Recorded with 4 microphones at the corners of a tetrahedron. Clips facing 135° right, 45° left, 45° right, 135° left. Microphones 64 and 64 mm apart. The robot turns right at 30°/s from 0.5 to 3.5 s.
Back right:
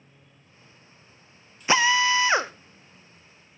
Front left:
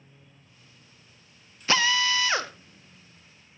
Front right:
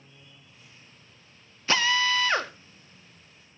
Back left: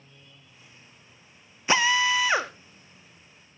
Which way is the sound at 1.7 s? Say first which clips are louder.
Back right 4 dB, back left 2 dB; 175° right.